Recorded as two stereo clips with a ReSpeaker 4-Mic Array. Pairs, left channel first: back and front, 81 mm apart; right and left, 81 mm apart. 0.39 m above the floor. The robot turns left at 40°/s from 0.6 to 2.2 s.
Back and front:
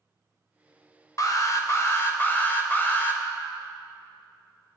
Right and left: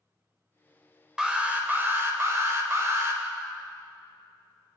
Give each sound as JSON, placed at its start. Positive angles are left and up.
{"t": 1.2, "sound": "an alarm", "azimuth_deg": 170, "distance_m": 1.0}